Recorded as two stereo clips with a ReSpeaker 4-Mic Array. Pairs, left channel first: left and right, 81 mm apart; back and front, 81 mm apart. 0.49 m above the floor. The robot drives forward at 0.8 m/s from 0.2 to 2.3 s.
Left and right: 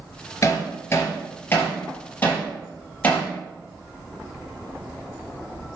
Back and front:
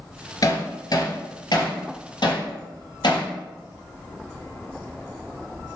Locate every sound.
0.4 s hammering: 140° left, 2 m; by 3.3 s 155° left, 3.5 m